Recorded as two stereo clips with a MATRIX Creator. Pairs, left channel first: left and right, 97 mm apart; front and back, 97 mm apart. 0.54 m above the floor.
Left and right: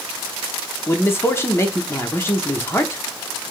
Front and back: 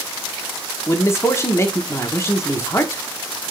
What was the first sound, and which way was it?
A man speaking, 40° left.